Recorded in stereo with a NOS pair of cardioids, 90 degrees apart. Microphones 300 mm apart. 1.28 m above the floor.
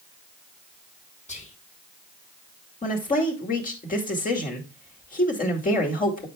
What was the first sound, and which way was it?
Whispering, 25° left.